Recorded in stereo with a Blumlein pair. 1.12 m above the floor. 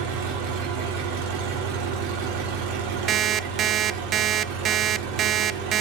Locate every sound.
0.0 s an engine running: 50° right, 3 m
3.1 s an alarm clock: 30° right, 0.6 m